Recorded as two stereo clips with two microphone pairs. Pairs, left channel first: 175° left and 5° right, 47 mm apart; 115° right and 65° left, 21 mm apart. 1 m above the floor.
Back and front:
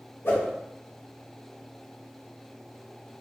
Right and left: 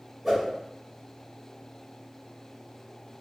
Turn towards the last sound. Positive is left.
turn(degrees=145)